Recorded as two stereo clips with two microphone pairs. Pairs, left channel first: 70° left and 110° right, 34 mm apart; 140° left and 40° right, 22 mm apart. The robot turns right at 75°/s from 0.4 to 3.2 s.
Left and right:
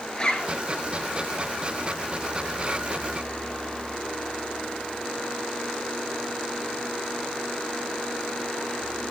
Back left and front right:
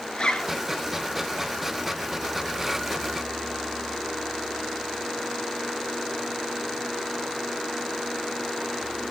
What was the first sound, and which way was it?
A zipper, 125° left.